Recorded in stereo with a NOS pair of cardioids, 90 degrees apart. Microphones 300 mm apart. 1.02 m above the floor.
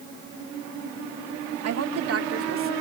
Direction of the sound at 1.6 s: 60° right.